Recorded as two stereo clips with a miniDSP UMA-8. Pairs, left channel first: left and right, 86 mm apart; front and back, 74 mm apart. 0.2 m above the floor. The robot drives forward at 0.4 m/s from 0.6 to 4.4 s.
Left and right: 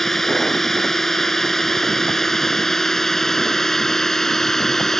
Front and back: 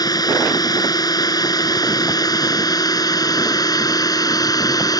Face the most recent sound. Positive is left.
turn(degrees=5)